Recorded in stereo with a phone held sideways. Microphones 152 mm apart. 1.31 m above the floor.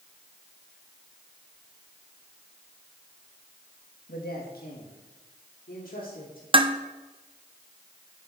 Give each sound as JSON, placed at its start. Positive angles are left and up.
{"t": 4.1, "sound": "a man speaking", "side_deg": 80, "distance_m": 2.0}
{"t": 6.5, "sound": "dishes clattering", "side_deg": -35, "distance_m": 0.7}